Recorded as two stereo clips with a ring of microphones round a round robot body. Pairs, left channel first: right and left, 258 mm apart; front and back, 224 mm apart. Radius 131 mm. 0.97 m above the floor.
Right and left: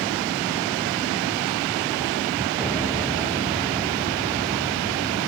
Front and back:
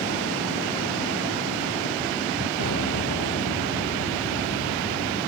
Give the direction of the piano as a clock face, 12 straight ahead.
12 o'clock.